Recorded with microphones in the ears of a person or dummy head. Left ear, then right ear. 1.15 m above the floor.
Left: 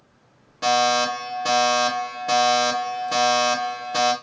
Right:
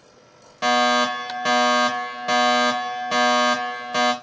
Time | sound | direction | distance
0.6 | a fire alarm | 30° right (ahead or behind) | 1.8 m